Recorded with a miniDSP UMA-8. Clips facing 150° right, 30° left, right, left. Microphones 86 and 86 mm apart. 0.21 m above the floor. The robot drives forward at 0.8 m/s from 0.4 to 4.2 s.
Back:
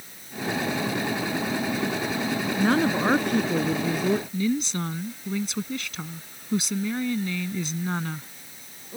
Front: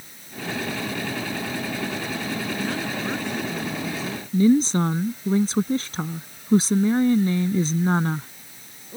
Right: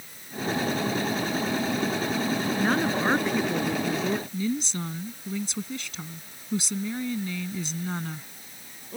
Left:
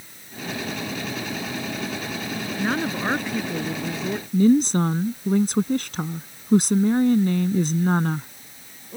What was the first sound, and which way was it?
A woman speaking, straight behind.